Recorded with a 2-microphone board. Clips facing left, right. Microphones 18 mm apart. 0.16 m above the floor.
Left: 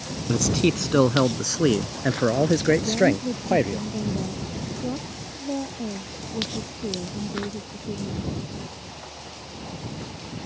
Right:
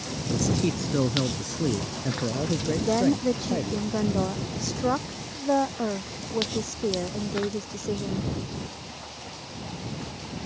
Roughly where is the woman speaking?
Right.